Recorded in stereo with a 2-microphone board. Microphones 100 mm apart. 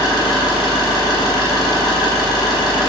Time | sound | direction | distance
0.0 | an engine running | 40° left (ahead or behind) | 1.5 m